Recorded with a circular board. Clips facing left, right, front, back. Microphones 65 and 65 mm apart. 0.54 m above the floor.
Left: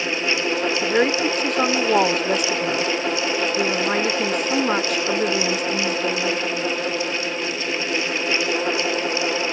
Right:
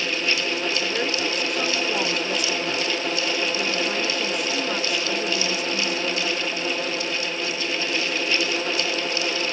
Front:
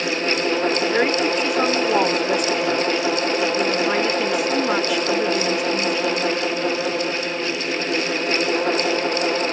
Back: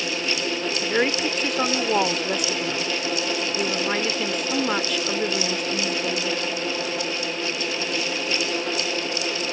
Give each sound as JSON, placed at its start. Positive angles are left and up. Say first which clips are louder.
{"t": 0.8, "sound": "a woman speaking", "louder": "left 6 dB, front 4 dB", "azimuth_deg": 80}